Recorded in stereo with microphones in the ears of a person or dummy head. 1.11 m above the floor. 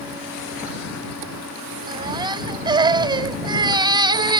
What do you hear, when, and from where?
1.9 s a baby crying: 25° right (ahead or behind)